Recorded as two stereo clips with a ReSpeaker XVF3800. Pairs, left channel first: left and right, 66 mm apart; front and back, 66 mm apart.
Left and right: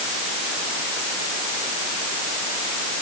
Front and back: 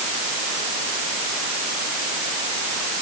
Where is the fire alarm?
I don't hear a fire alarm.